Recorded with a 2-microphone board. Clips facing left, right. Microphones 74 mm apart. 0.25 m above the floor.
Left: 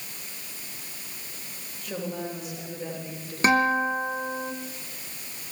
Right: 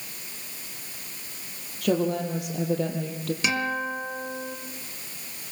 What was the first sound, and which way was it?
A woman speaking, 70° right (ahead or behind).